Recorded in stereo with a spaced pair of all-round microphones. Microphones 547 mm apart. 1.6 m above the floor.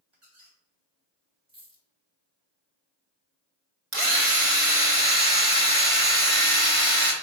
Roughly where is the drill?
Right.